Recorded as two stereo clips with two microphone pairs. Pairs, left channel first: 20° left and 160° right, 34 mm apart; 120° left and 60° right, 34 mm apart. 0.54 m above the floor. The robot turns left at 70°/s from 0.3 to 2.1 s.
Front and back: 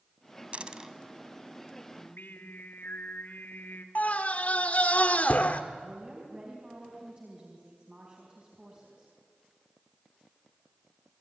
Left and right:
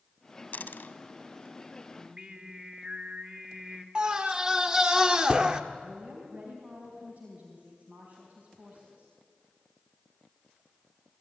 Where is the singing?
5° left, 2.5 m; by 3.9 s 5° right, 2.5 m.